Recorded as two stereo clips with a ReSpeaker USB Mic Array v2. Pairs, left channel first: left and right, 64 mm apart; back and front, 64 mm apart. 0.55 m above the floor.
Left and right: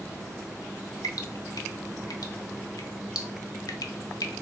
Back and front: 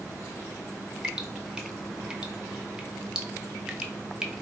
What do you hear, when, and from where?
1.0 s dripping: 75° left, 0.6 m